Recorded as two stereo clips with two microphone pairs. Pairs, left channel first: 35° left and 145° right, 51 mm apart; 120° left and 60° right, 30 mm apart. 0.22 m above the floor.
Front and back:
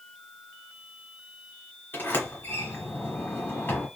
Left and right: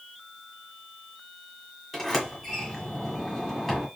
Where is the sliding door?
35° left, 1.5 m.